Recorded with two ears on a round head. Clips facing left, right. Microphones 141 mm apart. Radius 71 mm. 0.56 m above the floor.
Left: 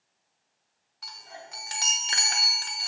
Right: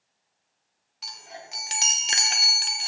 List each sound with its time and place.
1.0 s a chime: 25° right (ahead or behind), 0.5 m